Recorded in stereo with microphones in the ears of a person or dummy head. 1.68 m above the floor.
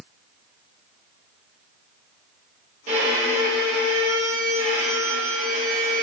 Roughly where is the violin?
Right.